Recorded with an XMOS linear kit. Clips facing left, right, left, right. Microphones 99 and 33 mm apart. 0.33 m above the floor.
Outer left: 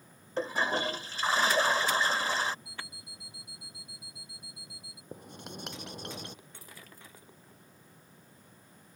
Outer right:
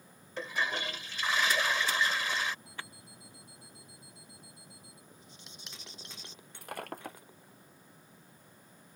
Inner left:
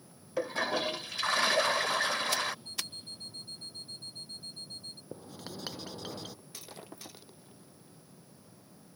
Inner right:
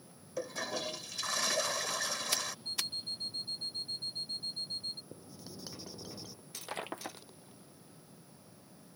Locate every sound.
0.4 s a toilet flushing: 35° left (ahead or behind)
2.6 s an alarm clock: 40° right (ahead or behind)
5.1 s writing: 55° left (ahead or behind)
6.5 s breaking glass: 60° right (ahead or behind)